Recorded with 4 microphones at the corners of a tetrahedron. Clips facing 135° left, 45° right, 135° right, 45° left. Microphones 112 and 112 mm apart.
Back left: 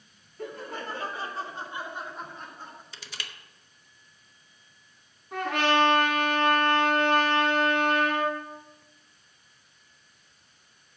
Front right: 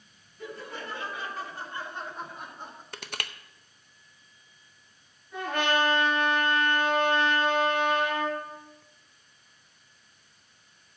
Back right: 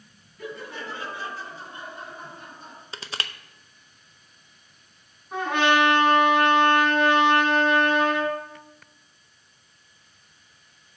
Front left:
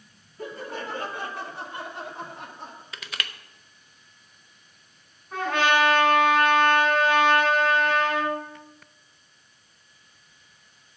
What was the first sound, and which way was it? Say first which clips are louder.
Laughter: back left 3 dB, front left 2 dB; 95° left.